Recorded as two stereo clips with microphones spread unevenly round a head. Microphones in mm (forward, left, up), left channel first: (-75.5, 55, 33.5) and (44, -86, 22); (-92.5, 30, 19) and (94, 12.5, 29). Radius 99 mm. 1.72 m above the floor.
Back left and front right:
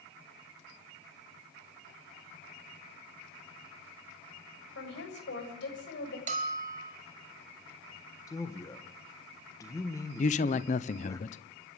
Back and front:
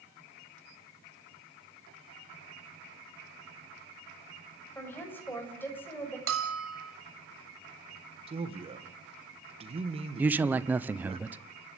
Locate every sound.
4.8 s a woman speaking: 95° left, 7 m
6.3 s a bell: 5° left, 4 m
8.3 s a man speaking: 55° left, 2.0 m
10.2 s a man speaking: 75° left, 0.9 m